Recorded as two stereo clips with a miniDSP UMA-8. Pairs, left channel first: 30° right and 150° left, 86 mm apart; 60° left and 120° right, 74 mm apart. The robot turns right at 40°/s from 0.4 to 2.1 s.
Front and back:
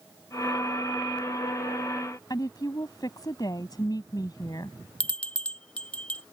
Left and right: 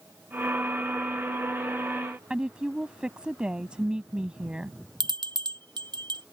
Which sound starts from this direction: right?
A bell, at 5.0 s.